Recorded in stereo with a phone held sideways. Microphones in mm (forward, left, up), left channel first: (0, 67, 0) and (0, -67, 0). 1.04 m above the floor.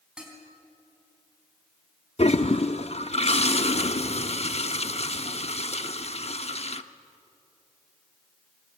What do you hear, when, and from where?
0.2 s dishes clattering: 5° right (ahead or behind), 5 m
2.2 s a toilet flushing: 50° left (ahead or behind), 0.8 m